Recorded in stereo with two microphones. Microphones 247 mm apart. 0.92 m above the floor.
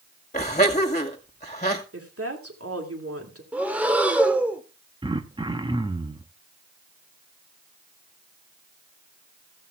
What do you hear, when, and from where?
0.3 s laughter: 30° left (ahead or behind), 2 m
1.9 s a woman speaking: 70° right (ahead or behind), 2.5 m
3.5 s breathing: 5° right (ahead or behind), 1.4 m
5.0 s throat clearing: 20° right (ahead or behind), 0.9 m